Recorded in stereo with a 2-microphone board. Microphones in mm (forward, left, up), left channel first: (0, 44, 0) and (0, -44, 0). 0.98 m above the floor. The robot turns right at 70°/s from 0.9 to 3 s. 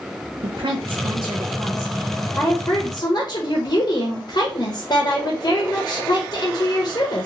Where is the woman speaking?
80° right, 0.6 m; by 7.3 s 70° left, 0.6 m.